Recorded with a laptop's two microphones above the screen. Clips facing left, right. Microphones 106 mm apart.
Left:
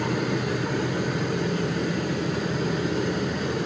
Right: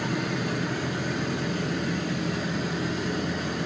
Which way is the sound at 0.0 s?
55° left (ahead or behind).